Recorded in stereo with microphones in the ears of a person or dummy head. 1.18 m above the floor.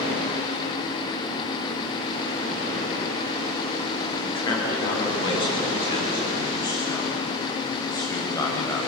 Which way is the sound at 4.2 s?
20° left (ahead or behind).